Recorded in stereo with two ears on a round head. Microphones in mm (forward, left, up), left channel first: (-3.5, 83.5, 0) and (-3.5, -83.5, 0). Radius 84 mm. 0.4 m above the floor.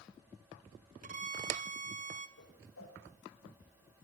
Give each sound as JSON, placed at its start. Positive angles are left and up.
{"t": 1.0, "sound": "a violin", "side_deg": -45, "distance_m": 1.8}
{"t": 2.4, "sound": "a whoosh", "side_deg": 85, "distance_m": 7.5}